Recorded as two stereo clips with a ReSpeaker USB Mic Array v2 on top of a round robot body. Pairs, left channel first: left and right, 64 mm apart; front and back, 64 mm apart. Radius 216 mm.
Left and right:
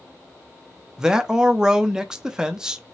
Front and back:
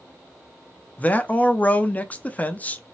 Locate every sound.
1.0 s a man speaking: 25° right, 0.8 m